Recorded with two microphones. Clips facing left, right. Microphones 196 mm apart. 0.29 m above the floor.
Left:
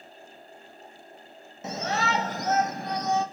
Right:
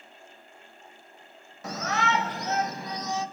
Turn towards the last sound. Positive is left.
turn(degrees=60)  # may be behind; listen again after turning